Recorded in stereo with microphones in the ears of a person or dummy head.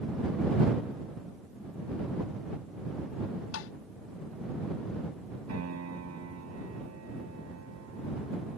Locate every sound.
3.5 s tapping: 75° left (ahead or behind)
5.5 s a piano: 85° right